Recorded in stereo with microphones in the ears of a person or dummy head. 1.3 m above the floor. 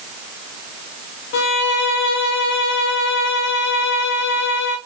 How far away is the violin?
About 0.6 m.